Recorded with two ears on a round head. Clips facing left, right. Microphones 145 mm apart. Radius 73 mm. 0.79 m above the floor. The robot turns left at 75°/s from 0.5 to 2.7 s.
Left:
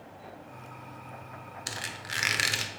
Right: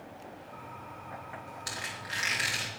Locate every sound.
1.7 s a squeak: 150° left, 0.9 m; by 2.7 s 75° left, 0.9 m